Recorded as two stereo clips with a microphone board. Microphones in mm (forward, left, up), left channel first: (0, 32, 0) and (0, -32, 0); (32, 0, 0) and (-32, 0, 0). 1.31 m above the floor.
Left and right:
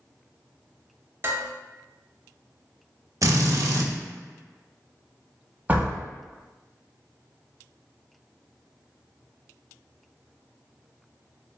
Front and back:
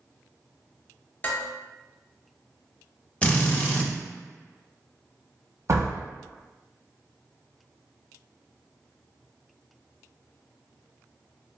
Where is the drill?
65° right, 0.6 m.